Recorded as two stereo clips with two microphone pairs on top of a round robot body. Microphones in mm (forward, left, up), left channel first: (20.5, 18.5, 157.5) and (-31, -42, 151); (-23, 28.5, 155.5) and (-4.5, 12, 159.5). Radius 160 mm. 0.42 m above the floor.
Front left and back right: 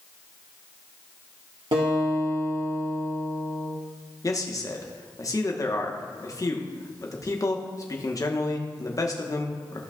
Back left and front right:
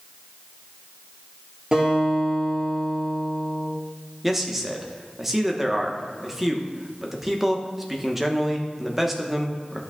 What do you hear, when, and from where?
1.7 s a guitar: 110° right, 3 m
4.2 s a man speaking: 45° left, 1.1 m